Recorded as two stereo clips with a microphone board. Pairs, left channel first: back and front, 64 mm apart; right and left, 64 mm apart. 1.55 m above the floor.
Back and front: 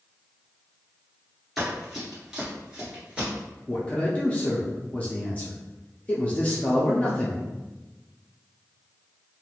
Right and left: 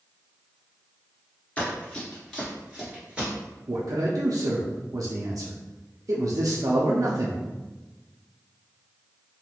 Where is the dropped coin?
I don't hear a dropped coin.